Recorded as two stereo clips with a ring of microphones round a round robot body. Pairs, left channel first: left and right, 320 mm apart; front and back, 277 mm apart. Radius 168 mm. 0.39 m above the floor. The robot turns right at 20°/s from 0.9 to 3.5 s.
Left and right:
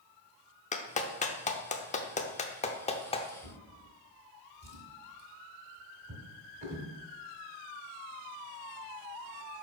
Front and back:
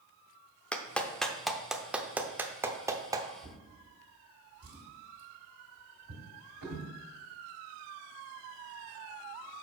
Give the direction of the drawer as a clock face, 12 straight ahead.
5 o'clock.